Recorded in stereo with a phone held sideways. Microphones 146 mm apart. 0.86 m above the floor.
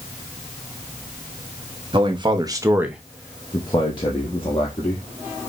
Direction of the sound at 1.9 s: 35° right (ahead or behind).